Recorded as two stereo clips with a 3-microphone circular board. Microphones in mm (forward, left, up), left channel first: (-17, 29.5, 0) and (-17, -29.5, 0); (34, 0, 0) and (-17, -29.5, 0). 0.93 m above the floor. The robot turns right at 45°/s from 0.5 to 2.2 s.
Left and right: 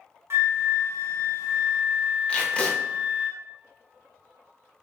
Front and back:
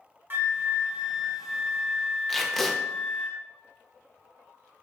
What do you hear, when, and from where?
0.3 s a flute: 110° right, 0.5 m; by 3.3 s 30° right, 0.5 m
2.3 s tape being pulled: 105° left, 0.5 m